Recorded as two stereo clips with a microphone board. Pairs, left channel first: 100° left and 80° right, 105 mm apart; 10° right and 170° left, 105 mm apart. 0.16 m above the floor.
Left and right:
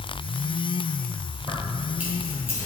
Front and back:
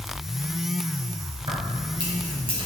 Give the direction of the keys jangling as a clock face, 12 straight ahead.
5 o'clock.